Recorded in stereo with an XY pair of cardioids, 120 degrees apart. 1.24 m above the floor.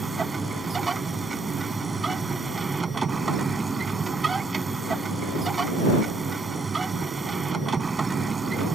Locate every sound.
0.0 s a machine running: 20° right